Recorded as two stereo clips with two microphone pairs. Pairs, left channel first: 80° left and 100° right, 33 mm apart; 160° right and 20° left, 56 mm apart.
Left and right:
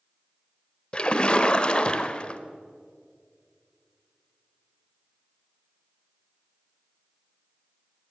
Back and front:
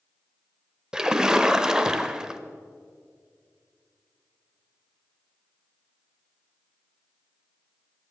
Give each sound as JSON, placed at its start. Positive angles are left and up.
{"t": 0.9, "sound": "a splash", "azimuth_deg": 85, "distance_m": 0.8}